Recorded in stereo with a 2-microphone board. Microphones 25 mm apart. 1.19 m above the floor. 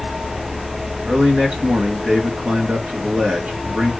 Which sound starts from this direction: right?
A man speaking, at 1.1 s.